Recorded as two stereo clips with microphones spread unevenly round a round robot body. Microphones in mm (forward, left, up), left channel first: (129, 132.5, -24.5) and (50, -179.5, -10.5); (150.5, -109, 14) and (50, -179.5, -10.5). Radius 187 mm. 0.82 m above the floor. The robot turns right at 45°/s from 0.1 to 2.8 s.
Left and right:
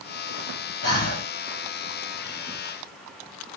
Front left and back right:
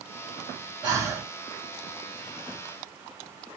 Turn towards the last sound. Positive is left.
turn(degrees=-140)